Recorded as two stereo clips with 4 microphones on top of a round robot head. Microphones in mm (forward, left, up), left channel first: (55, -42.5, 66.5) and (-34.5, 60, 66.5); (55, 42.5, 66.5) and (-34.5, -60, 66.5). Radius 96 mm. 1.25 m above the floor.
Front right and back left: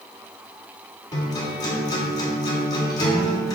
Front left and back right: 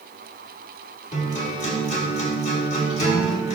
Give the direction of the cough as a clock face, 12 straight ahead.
No cough in this recording.